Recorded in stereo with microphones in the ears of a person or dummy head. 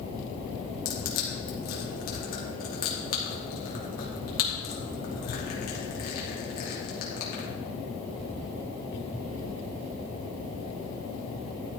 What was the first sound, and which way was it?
Crushing, 50° left (ahead or behind).